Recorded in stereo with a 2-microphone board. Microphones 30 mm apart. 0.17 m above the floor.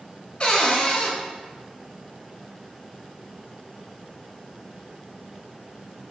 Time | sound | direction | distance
0.4 | a cupboard door | 35° left (ahead or behind) | 0.6 m